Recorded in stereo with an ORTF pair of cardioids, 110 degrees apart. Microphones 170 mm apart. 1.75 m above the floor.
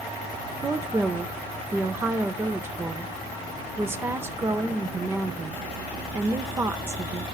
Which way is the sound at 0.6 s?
15° right.